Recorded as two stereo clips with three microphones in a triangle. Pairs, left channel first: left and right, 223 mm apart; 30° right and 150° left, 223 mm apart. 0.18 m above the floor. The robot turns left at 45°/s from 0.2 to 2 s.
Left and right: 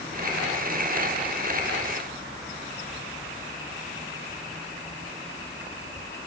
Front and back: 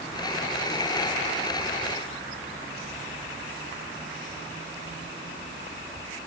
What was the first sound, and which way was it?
Only background noise.